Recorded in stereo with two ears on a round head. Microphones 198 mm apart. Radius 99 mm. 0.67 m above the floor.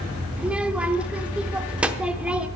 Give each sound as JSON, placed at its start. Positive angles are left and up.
{"t": 0.4, "sound": "a child speaking", "side_deg": -5, "distance_m": 0.8}